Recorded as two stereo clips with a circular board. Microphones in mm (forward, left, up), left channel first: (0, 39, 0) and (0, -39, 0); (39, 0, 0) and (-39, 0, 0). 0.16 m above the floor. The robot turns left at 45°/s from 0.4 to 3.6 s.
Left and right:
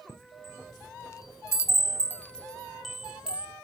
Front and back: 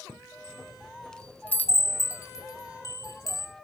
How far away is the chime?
About 0.8 m.